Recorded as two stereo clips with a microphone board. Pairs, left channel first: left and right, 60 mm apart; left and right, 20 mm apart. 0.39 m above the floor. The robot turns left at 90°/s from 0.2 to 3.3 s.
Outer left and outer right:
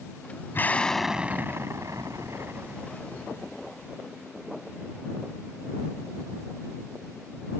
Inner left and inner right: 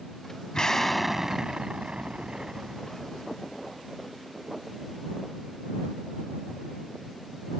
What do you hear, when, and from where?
0.5 s an explosion: 40° left; by 3.9 s 155° left